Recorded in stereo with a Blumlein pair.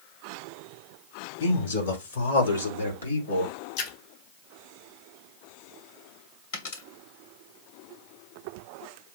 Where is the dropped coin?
55° left, 2.5 m.